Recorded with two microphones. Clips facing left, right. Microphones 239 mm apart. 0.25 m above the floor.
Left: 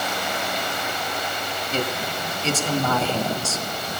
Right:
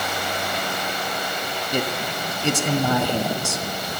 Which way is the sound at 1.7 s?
15° right (ahead or behind).